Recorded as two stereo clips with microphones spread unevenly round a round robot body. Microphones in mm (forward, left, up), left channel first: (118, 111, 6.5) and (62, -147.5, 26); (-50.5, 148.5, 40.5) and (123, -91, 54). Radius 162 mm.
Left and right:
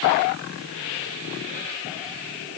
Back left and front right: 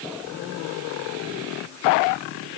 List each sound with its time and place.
Only background noise.